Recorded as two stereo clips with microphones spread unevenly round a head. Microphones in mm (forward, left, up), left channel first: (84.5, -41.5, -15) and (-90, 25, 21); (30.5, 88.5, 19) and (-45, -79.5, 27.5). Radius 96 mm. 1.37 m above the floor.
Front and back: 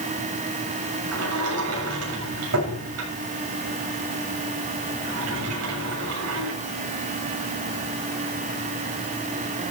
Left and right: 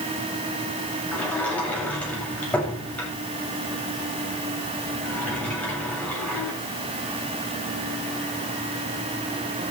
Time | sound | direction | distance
1.1 | a sliding door | 150° left | 8 m